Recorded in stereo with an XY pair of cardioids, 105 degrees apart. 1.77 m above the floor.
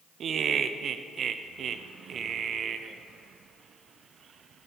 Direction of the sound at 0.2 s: 55° right.